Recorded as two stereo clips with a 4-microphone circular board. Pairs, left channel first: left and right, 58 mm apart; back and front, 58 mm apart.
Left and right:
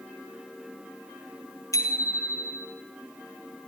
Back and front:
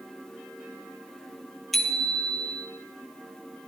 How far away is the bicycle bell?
About 2.5 m.